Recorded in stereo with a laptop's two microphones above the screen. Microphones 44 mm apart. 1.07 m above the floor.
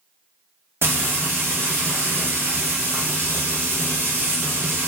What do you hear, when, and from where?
0.8 s frying: 70° right (ahead or behind), 1.2 m